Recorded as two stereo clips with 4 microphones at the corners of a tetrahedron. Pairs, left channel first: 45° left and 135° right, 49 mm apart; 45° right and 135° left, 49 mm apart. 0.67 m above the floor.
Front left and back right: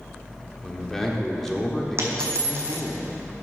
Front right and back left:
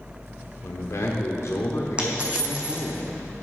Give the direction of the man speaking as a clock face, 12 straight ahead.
1 o'clock.